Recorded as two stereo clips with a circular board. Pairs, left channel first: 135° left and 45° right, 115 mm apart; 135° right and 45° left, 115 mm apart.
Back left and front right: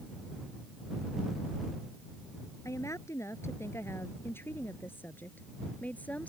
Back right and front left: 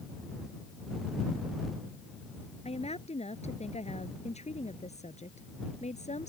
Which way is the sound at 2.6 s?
160° right.